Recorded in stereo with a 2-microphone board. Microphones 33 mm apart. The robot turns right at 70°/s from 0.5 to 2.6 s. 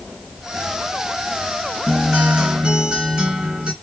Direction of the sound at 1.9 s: 170° right.